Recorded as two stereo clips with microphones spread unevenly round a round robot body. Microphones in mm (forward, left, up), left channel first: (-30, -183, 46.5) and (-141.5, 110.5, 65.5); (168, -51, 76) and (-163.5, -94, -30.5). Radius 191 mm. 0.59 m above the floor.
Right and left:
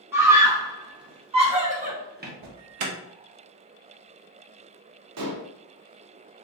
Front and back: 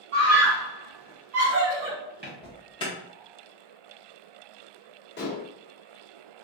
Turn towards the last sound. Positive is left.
turn(degrees=75)